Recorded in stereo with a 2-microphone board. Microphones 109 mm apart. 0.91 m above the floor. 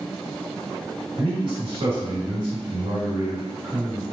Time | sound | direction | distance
1.2 | a man speaking | 50° right (ahead or behind) | 2.0 m